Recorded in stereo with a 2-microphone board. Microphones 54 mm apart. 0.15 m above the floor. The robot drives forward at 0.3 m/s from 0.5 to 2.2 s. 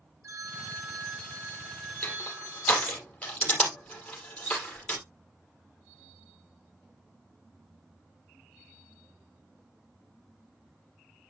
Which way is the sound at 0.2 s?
50° right (ahead or behind).